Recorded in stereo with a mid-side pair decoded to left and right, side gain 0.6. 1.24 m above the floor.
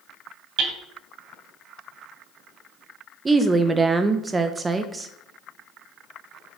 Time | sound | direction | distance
0.6 | hammering | 65° right | 2.5 m
3.2 | a woman speaking | 20° right | 0.9 m